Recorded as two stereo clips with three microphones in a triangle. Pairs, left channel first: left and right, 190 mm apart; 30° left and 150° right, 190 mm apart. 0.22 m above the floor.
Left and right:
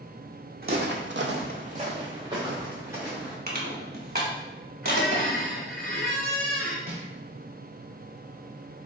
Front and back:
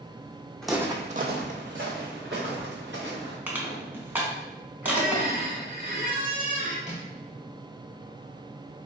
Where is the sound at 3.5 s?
70° right, 0.9 m.